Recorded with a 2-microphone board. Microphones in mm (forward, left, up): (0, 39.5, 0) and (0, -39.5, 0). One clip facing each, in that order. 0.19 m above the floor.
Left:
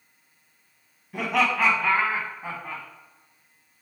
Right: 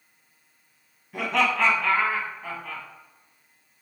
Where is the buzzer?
I don't hear a buzzer.